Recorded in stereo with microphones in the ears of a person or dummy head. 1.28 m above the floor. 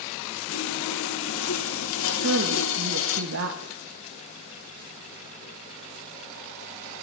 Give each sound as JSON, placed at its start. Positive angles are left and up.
{"t": 0.5, "sound": "sawing", "side_deg": 65, "distance_m": 1.5}
{"t": 2.2, "sound": "a woman speaking", "side_deg": -70, "distance_m": 1.4}